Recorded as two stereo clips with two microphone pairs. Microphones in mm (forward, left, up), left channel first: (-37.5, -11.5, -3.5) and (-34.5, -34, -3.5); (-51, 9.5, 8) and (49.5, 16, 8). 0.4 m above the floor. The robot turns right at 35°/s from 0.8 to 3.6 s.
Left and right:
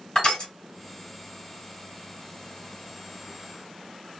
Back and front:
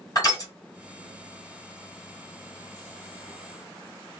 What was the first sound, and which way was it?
Crushing, 140° left.